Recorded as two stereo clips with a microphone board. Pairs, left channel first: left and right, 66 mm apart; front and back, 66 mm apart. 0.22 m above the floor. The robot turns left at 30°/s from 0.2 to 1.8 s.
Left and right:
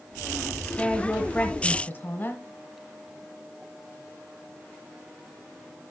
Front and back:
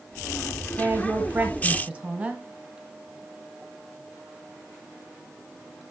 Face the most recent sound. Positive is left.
turn(degrees=125)